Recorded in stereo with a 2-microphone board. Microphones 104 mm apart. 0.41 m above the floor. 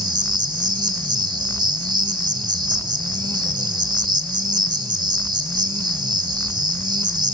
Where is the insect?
45° right (ahead or behind), 1.3 m.